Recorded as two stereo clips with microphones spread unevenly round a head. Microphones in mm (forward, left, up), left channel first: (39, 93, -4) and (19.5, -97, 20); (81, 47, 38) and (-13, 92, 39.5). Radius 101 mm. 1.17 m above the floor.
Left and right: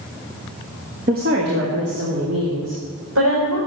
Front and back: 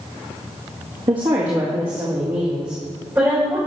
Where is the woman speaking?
145° right, 1.5 m; by 3.6 s 125° right, 5 m.